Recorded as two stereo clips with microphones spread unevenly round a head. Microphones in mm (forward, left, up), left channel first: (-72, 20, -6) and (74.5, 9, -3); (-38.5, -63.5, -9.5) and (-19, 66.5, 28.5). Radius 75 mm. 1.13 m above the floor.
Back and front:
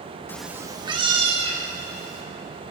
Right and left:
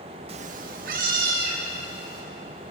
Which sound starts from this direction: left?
A cat meowing, at 0.3 s.